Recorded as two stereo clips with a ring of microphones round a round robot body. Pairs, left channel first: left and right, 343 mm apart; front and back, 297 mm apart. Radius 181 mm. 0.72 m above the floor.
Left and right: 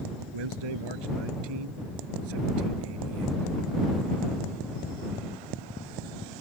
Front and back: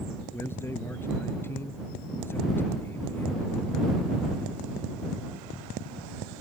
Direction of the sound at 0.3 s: 85° right.